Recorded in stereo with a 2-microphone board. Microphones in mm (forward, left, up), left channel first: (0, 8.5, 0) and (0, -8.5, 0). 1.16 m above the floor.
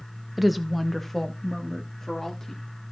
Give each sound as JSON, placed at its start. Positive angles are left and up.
{"t": 0.4, "sound": "a woman speaking", "side_deg": -10, "distance_m": 1.0}